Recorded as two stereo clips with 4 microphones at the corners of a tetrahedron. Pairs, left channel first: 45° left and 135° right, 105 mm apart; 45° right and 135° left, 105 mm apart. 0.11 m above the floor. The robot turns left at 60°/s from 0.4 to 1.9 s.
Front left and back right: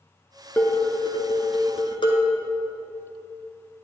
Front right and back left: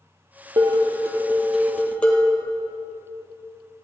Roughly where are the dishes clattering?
Left.